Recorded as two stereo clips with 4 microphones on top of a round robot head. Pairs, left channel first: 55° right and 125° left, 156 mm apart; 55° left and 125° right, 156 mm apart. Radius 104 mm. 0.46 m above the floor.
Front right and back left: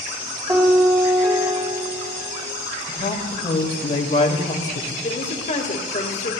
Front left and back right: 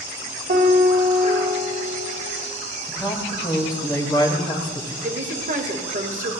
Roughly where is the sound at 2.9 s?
Ahead.